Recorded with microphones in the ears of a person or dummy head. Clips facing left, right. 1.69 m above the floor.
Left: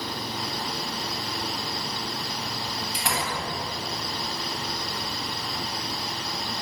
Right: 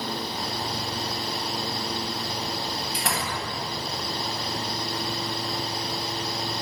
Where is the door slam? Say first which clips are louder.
Left 2 dB; 5° left (ahead or behind), 10 m.